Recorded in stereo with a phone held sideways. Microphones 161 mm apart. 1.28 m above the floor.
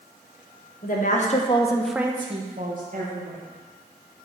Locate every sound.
0.8 s a woman speaking: 60° left (ahead or behind), 1.3 m; by 3.4 s 70° right (ahead or behind), 1.6 m